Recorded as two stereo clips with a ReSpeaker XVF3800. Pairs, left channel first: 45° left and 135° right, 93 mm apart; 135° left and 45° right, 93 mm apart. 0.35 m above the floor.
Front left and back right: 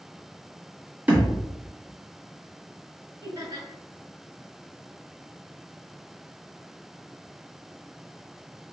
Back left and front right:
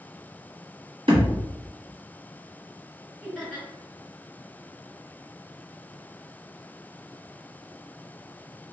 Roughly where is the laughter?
Behind right.